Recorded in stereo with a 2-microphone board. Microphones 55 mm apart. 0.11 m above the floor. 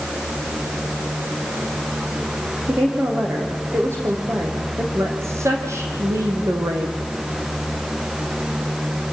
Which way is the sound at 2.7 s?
45° right (ahead or behind).